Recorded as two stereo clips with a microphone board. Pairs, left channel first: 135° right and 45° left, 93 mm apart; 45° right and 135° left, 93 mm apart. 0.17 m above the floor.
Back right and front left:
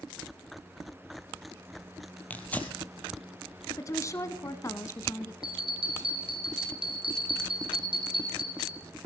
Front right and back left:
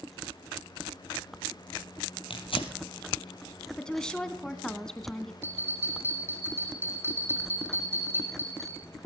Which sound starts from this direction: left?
A bell, at 5.4 s.